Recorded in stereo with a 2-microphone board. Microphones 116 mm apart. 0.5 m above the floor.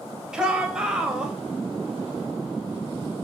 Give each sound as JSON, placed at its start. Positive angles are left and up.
{"t": 0.3, "sound": "a shout", "side_deg": -5, "distance_m": 3.0}